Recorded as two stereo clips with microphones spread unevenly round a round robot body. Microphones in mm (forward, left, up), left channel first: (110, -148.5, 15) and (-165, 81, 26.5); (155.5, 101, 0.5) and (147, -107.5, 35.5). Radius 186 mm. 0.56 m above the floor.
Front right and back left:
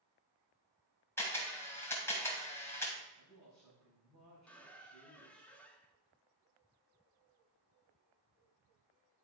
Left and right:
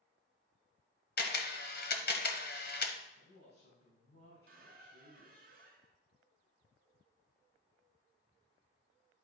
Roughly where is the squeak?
Behind right.